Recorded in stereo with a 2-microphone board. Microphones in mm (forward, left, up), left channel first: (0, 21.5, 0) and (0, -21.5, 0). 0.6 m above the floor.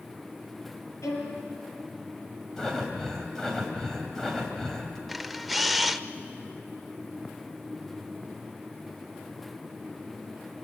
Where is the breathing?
10° left (ahead or behind), 3.5 m.